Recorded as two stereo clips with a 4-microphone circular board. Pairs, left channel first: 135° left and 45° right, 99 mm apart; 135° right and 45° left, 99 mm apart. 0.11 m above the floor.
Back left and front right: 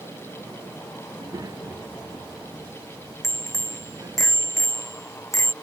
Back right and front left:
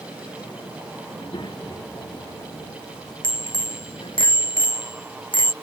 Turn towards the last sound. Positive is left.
turn(degrees=-170)